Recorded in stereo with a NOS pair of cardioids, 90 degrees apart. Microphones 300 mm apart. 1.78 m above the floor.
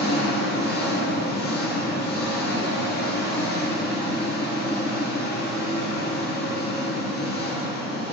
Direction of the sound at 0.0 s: 35° left.